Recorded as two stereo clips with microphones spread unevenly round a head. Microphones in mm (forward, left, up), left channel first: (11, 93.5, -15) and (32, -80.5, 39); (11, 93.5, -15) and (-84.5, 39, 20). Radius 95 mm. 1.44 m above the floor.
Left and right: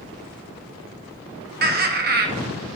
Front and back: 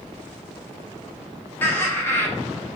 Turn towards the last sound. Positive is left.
turn(degrees=-55)